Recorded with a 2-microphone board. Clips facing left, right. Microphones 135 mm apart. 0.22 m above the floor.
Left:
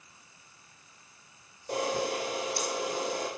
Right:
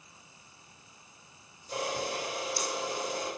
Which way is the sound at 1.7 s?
65° left (ahead or behind).